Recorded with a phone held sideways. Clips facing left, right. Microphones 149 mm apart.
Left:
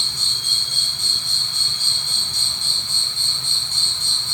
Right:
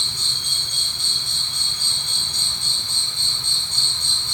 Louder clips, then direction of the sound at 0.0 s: Even; 35° right (ahead or behind).